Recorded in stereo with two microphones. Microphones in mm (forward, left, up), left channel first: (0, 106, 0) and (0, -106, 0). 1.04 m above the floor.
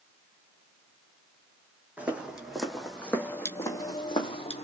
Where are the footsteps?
5° right (ahead or behind), 2.5 m; by 4.6 s 30° left (ahead or behind), 2.0 m.